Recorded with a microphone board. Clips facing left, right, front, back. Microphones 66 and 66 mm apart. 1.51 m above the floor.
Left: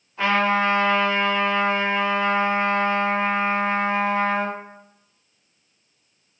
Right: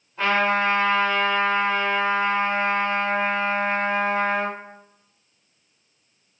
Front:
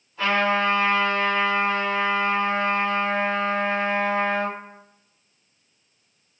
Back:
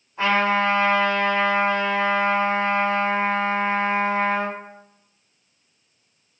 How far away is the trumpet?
About 1.5 m.